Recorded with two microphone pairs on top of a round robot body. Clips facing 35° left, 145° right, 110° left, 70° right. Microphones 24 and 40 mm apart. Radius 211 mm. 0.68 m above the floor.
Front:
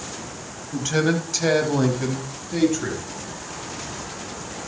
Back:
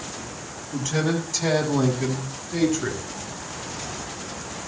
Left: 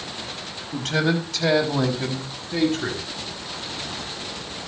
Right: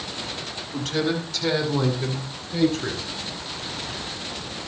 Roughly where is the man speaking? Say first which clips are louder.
Front 3 dB, left 2 dB; left.